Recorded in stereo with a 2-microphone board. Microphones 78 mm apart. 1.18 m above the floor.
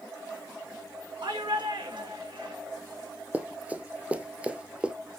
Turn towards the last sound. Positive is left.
turn(degrees=-15)  # may be behind; listen again after turning